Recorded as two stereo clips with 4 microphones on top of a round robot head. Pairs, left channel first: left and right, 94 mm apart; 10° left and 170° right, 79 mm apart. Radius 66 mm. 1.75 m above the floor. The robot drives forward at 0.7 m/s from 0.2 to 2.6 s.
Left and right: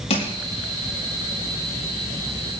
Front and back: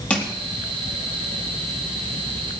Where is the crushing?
85° left, 4.5 m.